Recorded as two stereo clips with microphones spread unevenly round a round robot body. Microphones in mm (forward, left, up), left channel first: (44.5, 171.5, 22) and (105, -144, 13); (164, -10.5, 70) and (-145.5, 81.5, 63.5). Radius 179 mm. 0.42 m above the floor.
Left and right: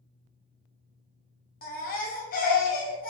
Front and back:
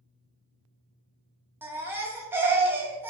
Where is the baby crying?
90° left, 0.6 m.